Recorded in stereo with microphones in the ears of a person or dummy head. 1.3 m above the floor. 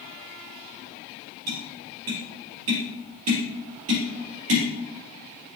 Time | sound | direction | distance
1.5 | tapping | 70° right (ahead or behind) | 4.5 m